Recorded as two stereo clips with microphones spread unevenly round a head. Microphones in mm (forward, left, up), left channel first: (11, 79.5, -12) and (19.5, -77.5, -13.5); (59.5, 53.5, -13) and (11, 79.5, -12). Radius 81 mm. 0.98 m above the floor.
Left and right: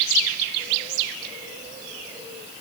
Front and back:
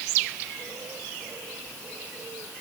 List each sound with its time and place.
Only background noise.